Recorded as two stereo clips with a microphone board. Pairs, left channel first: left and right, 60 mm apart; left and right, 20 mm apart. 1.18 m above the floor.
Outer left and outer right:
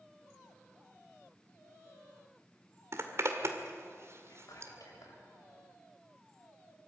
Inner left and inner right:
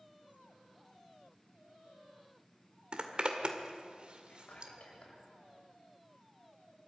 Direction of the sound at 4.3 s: 75° left (ahead or behind).